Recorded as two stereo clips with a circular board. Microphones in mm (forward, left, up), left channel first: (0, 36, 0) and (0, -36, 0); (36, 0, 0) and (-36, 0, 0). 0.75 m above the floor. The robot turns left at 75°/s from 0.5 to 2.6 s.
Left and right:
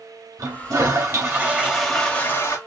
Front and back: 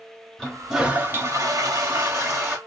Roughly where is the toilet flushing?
Right.